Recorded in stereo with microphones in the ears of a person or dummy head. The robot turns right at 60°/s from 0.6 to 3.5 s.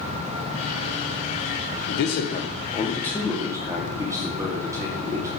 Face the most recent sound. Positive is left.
turn(degrees=-160)